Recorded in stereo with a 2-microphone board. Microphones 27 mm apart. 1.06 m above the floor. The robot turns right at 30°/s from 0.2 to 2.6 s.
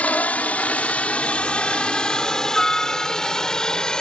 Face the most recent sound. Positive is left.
turn(degrees=25)  # may be behind; listen again after turning